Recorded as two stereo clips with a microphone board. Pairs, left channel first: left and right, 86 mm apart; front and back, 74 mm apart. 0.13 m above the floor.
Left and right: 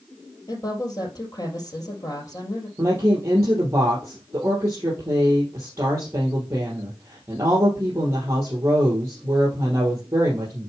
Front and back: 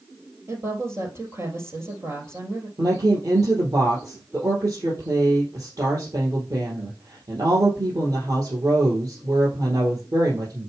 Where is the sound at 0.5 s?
125° left, 3 m.